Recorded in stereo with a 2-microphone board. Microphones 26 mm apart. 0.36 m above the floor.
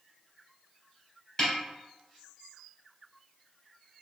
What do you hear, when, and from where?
1.4 s a snare drum: 20° left (ahead or behind), 1.4 m